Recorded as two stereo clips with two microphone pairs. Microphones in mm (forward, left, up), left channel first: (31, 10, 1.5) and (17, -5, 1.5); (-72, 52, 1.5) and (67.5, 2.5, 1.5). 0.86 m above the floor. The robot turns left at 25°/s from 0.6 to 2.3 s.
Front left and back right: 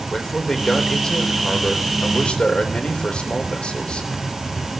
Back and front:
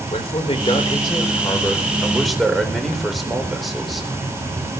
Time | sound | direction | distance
0.1 | a man speaking | 115° left | 3.5 m